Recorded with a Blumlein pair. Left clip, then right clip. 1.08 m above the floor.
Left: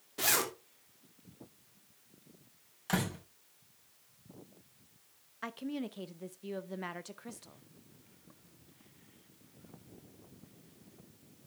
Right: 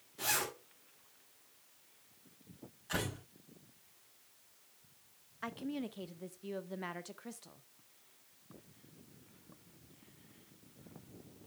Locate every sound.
0.2 s a zipper: 60° left, 3 m
2.9 s a door slam: 55° left, 6.5 m
5.4 s a woman speaking: 5° left, 0.7 m